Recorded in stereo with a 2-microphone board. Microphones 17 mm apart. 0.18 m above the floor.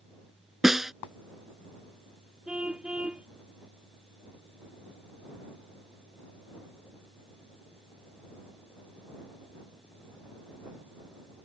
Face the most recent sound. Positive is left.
turn(degrees=-65)  # may be behind; listen again after turning